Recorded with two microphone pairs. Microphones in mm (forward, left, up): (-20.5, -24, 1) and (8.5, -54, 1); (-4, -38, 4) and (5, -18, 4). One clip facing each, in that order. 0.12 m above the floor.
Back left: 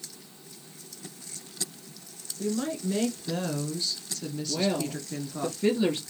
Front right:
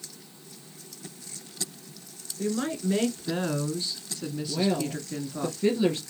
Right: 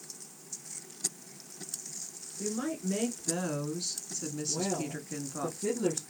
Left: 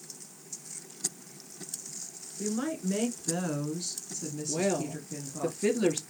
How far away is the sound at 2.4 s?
About 2 m.